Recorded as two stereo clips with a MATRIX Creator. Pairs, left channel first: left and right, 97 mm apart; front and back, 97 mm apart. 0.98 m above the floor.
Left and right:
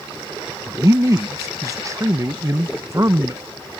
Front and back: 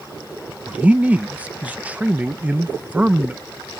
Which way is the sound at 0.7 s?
115° right.